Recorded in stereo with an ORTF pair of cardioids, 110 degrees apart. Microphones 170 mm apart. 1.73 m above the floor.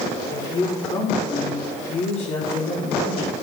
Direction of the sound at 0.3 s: 25° left.